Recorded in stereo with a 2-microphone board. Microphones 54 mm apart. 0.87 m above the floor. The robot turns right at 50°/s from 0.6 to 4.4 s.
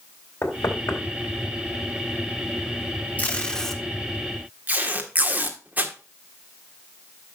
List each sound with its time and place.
0.4 s knocking: 75° left (ahead or behind), 3.5 m; by 1.0 s 55° left (ahead or behind), 3.5 m
3.2 s tape being pulled: 30° left (ahead or behind), 1.6 m; by 5.9 s 30° right (ahead or behind), 1.6 m